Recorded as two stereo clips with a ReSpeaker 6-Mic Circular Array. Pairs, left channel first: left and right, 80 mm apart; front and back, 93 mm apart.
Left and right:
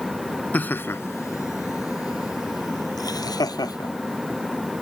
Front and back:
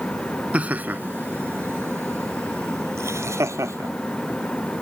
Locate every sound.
0.5 s laughter: 125° left; by 3.9 s 120° left